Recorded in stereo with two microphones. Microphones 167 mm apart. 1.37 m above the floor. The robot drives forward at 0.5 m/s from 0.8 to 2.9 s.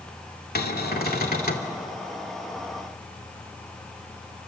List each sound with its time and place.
0.6 s a cupboard door: 70° left (ahead or behind), 2.5 m; by 1.7 s 60° left (ahead or behind), 2.5 m